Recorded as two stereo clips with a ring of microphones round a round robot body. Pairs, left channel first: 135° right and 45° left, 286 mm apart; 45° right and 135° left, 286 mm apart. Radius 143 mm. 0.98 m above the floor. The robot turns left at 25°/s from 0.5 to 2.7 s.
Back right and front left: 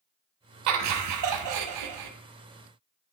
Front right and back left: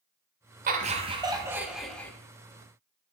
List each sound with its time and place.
0.7 s laughter: 75° left, 0.6 m; by 2.1 s 40° left, 0.6 m